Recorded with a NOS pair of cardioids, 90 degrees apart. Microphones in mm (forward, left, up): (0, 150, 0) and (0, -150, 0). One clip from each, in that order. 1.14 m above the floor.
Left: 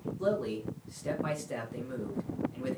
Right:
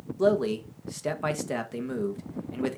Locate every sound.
0.2 s a man speaking: 65° right, 1.5 m